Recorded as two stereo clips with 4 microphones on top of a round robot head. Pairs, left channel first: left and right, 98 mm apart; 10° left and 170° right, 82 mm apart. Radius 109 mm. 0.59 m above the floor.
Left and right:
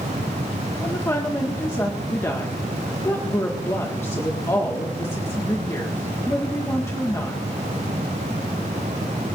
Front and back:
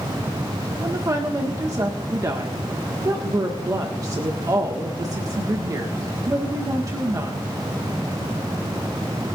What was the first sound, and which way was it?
A woman speaking, 150° left.